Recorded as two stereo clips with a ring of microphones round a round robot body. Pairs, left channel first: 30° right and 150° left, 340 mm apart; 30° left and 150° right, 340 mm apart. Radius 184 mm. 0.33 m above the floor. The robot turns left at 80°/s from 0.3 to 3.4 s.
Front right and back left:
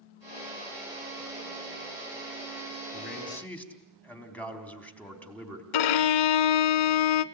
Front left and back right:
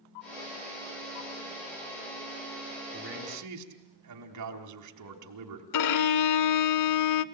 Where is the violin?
10° right, 0.9 m.